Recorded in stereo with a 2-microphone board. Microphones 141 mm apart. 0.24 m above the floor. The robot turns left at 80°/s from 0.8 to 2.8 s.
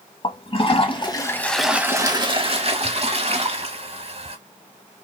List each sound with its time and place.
0.2 s a toilet flushing: 65° left, 0.7 m; by 4.4 s 95° right, 0.7 m